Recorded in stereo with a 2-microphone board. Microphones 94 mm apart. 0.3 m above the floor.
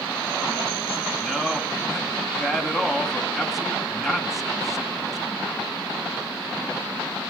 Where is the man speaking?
Centre (ahead or behind), 2.5 m.